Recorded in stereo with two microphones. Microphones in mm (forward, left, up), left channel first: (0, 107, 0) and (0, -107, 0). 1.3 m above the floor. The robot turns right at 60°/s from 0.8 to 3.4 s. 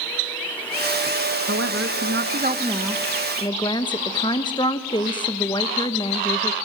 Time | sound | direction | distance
1.5 | a woman speaking | 95° right | 1.1 m